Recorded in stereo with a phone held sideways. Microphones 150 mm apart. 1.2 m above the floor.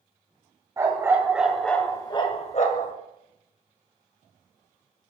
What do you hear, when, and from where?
0.8 s a dog barking: 20° right (ahead or behind), 2 m; by 2.9 s 60° left (ahead or behind), 1.6 m